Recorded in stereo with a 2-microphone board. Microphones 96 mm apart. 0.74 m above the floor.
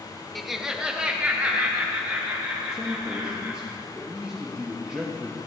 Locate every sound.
0.3 s laughter: centre (ahead or behind), 0.5 m; by 3.7 s 15° right (ahead or behind), 3.5 m
2.7 s a man speaking: 5° right (ahead or behind), 0.8 m